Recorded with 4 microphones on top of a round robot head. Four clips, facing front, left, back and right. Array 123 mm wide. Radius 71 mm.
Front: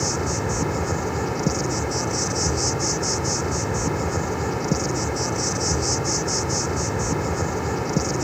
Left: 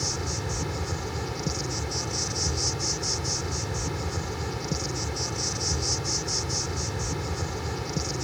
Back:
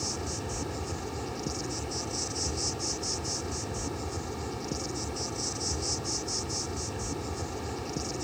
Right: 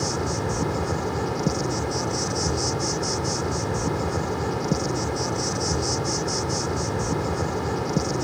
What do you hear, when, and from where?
0.0 s an insect: 40° right